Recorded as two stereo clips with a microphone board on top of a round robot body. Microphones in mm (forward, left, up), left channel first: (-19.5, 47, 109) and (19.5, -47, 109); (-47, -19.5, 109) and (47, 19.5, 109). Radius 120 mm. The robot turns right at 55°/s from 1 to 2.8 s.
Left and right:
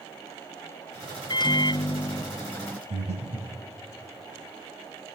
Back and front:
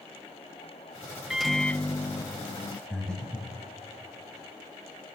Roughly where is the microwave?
Left.